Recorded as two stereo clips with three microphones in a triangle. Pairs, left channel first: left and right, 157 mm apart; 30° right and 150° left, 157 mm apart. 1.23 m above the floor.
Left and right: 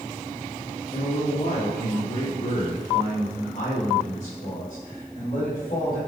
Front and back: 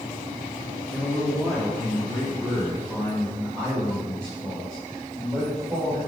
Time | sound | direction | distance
0.9 | a man speaking | 65° left | 1.9 m